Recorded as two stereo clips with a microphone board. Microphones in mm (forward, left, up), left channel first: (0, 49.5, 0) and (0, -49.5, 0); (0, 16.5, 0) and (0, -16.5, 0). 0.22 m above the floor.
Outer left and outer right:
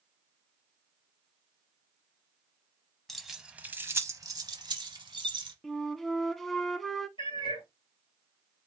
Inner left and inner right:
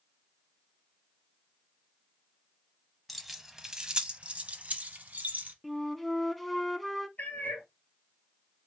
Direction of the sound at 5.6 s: 5° left (ahead or behind).